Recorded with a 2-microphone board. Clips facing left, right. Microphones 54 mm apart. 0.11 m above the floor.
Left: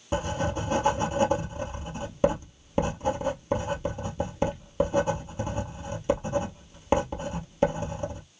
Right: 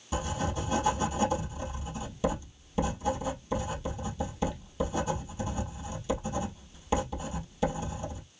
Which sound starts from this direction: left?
Writing, at 0.1 s.